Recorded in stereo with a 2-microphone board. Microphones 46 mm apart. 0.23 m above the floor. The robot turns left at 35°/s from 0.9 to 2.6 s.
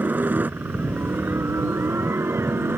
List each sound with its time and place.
0.0 s a helicopter: 50° right; by 2.8 s 110° right